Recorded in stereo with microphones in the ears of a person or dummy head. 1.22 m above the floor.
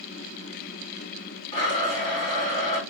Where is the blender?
25° left (ahead or behind), 2 m.